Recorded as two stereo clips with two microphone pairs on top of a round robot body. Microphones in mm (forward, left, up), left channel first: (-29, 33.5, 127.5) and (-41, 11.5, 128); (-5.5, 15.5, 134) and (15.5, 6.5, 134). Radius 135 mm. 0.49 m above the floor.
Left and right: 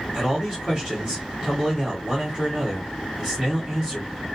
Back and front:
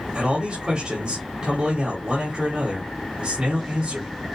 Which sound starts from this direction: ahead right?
A man speaking, at 0.1 s.